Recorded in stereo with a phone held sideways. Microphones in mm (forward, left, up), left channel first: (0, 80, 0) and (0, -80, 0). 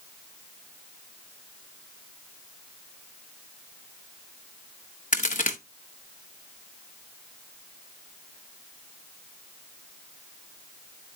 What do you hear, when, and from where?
5.1 s a crack: 55° left (ahead or behind), 0.8 m